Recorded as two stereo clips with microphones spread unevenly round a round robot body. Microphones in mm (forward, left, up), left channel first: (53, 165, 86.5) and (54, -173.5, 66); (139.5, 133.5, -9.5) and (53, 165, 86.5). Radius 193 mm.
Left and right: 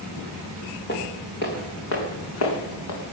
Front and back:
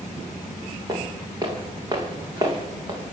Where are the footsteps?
155° left, 2.5 m; by 3.1 s 140° left, 3.5 m.